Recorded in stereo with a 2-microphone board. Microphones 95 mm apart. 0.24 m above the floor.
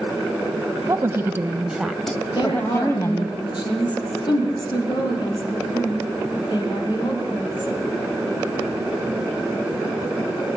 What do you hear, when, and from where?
0.9 s a woman speaking: 35° right (ahead or behind), 1.3 m; by 3.4 s 35° left (ahead or behind), 1.5 m
2.4 s a woman speaking: 50° left (ahead or behind), 7.5 m